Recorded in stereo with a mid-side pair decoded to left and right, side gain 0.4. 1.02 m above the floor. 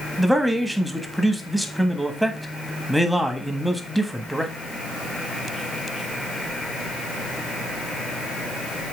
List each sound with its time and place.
0.2 s a man speaking: 10° right, 1.4 m